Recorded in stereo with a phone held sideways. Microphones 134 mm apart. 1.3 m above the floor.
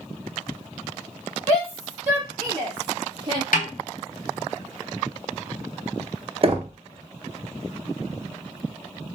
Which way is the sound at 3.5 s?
90° left.